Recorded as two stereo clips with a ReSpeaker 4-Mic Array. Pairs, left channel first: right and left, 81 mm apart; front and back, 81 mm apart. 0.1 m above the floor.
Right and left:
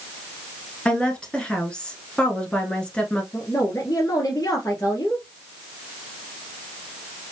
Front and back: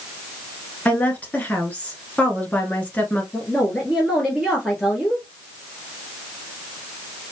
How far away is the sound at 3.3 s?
About 1.5 m.